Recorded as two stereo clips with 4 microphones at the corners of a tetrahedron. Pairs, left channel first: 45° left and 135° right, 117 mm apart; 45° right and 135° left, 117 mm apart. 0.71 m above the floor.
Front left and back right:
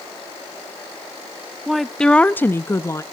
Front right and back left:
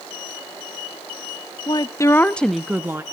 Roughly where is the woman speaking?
Ahead right.